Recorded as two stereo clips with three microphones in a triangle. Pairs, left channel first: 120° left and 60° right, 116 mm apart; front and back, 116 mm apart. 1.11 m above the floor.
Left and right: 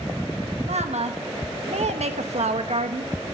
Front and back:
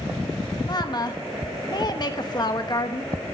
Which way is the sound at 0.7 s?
50° right.